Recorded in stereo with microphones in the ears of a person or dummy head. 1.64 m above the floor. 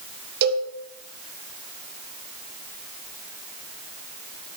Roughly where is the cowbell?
Right.